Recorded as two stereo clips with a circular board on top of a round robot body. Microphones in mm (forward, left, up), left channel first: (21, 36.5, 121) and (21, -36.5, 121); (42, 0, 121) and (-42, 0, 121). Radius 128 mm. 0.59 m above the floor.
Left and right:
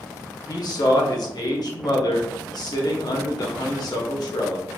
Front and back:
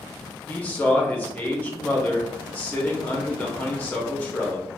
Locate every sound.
0.5 s a man speaking: 70° left, 1.2 m